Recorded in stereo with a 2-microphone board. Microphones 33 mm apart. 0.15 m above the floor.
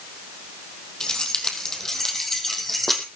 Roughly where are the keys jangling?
Left.